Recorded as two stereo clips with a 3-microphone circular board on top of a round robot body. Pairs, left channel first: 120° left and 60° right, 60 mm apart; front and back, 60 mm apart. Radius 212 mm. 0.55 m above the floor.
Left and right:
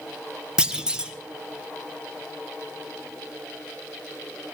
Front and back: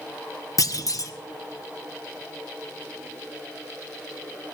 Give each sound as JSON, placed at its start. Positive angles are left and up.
{"t": 0.6, "sound": "a clunk", "azimuth_deg": 20, "distance_m": 1.3}